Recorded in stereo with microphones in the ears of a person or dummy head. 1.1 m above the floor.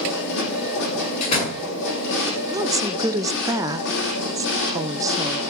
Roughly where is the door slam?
Left.